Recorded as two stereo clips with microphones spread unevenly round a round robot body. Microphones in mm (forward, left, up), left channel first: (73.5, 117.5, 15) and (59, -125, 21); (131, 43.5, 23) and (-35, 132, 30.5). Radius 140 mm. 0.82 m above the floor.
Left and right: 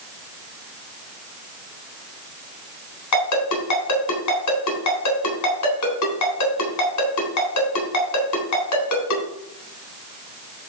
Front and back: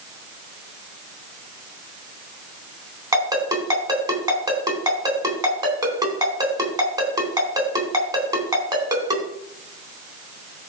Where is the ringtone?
80° left, 4 m.